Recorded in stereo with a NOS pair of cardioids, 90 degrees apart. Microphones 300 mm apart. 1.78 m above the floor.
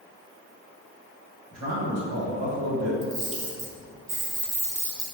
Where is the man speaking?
60° right, 1.5 m.